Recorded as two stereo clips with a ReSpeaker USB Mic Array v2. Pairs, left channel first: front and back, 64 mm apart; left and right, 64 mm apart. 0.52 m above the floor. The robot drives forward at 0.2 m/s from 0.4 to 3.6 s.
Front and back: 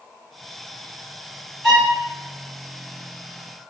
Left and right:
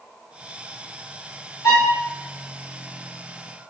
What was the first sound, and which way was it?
A violin, 85° left.